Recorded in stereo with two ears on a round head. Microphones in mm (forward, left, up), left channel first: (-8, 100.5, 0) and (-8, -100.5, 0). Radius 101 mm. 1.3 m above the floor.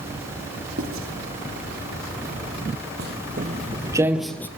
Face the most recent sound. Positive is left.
turn(degrees=10)  # may be behind; listen again after turning